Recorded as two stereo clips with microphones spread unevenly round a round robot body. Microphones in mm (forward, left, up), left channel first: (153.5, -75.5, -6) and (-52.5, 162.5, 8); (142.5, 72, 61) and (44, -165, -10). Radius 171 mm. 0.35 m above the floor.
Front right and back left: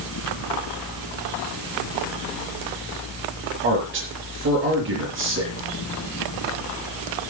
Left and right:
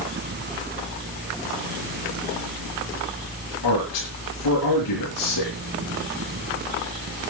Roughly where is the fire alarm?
I don't hear a fire alarm.